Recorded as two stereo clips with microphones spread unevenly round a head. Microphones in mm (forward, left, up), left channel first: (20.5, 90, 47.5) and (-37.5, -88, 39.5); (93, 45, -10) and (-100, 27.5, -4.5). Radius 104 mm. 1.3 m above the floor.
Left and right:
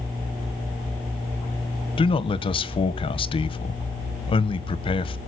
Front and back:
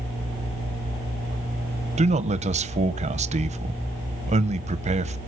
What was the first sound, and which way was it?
A man speaking, 135° left.